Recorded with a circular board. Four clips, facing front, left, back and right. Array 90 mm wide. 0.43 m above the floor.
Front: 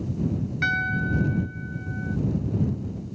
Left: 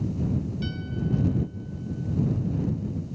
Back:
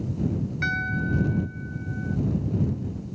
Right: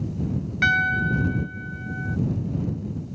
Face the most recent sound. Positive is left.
turn(degrees=-80)